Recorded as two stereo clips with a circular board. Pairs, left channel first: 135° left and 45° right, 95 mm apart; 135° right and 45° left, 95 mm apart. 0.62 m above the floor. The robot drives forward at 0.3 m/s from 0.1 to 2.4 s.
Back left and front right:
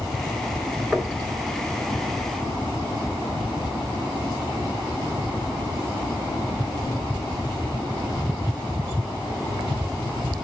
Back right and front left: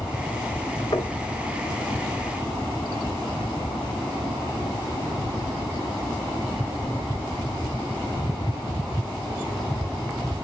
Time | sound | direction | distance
0.9 | knocking | 135° right | 1.5 m